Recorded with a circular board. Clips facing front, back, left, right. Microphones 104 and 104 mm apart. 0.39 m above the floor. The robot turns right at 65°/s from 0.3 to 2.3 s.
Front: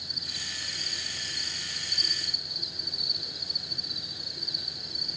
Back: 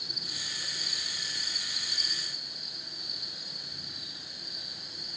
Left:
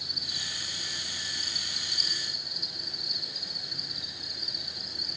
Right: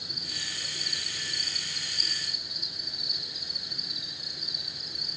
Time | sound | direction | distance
0.0 | an insect | 145° right | 6 m